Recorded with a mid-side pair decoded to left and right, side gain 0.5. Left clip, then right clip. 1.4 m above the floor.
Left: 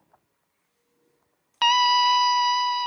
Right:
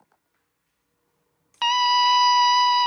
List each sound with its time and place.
1.6 s a scream: 20° left, 0.6 m; by 2.9 s 40° right, 0.8 m